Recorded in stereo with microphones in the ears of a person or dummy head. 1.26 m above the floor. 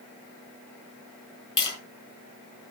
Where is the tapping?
25° left (ahead or behind), 5.5 m.